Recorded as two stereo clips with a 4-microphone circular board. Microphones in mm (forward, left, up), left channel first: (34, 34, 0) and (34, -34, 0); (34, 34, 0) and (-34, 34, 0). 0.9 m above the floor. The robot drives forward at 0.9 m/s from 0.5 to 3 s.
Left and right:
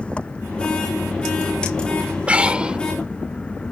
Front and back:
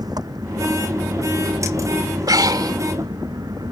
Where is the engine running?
160° left; by 3.7 s 165° left.